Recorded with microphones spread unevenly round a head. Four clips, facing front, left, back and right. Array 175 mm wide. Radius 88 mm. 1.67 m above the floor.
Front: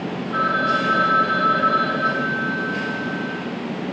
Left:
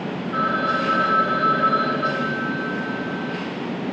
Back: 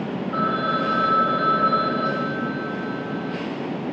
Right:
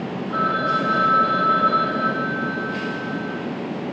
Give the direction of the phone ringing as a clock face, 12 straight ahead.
4 o'clock.